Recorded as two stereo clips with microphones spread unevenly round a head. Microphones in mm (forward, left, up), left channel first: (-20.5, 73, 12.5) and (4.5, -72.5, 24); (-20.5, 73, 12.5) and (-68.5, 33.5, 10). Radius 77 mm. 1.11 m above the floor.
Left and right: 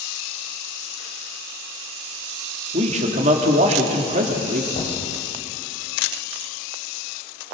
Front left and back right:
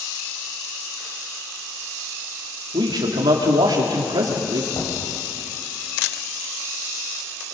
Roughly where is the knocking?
Ahead left.